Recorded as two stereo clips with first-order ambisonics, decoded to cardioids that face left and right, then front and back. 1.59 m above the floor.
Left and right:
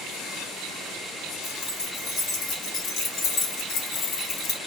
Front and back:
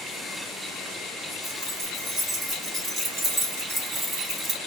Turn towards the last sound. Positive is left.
turn(degrees=110)